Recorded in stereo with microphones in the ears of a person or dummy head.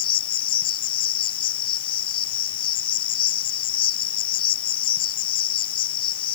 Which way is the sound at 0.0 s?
30° left (ahead or behind).